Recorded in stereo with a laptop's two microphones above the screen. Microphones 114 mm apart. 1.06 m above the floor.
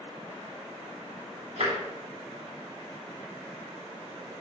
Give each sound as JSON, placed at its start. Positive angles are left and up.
{"t": 1.6, "sound": "tapping", "side_deg": -60, "distance_m": 2.5}